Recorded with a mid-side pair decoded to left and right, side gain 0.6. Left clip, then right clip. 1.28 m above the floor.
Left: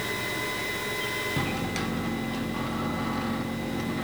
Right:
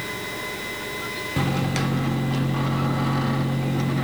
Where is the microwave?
30° right, 0.7 m.